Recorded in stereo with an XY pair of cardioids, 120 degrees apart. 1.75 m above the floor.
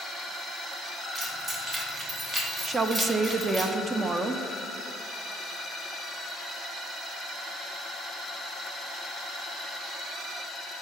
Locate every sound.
1.1 s keys jangling: 35° right, 2.0 m
2.6 s a woman speaking: 25° right, 0.6 m